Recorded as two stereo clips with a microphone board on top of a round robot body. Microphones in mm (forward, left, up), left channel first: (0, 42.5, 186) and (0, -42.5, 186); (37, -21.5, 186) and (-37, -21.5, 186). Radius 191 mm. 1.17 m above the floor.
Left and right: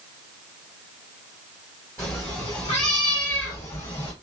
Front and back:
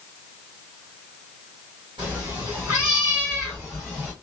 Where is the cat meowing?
145° left, 1.0 m; by 4.1 s 80° left, 1.5 m.